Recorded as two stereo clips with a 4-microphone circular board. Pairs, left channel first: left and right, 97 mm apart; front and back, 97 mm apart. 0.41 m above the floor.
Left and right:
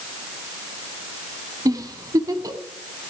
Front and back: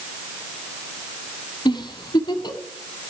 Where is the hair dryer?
I don't hear a hair dryer.